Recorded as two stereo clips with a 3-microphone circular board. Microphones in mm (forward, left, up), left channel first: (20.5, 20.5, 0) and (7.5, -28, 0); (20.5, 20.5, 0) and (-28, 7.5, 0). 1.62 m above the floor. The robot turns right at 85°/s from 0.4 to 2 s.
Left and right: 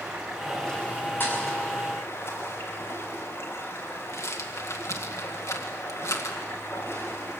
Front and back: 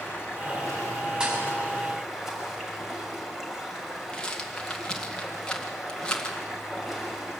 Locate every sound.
0.0 s running water: 25° right, 6 m; by 7.4 s 110° left, 6 m
1.2 s a thud: 120° left, 5 m; by 1.4 s 140° left, 5 m
4.1 s a rattle: 85° left, 2.0 m